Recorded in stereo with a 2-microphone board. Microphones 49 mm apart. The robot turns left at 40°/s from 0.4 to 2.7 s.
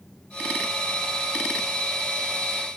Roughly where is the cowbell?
No cowbell in this recording.